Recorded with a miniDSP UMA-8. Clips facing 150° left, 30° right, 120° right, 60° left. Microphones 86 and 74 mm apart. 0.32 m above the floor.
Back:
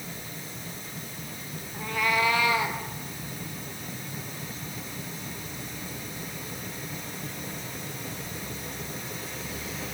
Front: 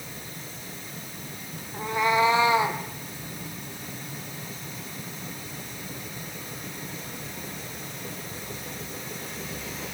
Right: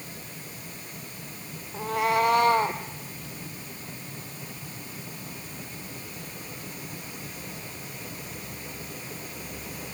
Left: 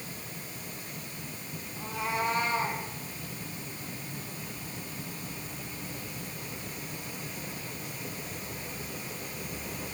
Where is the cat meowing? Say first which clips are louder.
Front 4 dB, right 8 dB; 100° right, 1.5 m; by 2.8 s 95° right, 2.5 m.